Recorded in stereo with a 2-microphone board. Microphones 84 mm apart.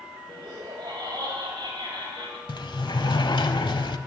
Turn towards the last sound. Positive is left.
turn(degrees=70)  # may be behind; listen again after turning